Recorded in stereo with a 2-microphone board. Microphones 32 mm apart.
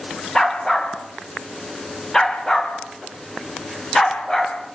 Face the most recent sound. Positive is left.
turn(degrees=20)  # may be behind; listen again after turning